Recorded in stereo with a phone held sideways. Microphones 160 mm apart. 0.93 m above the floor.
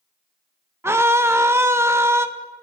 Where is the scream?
15° right (ahead or behind), 0.7 m.